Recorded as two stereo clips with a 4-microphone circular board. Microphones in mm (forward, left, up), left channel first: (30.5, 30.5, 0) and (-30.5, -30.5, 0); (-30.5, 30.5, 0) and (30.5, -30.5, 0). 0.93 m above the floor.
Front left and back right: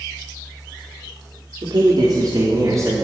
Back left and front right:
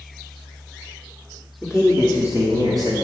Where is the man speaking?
130° right, 1.6 m; by 3.0 s 80° right, 1.9 m.